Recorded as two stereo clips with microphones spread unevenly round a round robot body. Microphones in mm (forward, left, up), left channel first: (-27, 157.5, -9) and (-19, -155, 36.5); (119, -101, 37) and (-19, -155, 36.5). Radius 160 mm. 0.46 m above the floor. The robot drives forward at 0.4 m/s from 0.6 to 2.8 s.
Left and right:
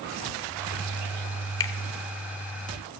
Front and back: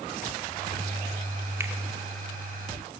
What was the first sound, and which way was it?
A finger snap, 140° left.